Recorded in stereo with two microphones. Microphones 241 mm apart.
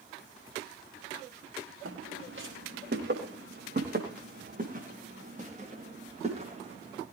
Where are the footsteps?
60° right (ahead or behind), 8 m; by 7.0 s 25° right (ahead or behind), 13 m.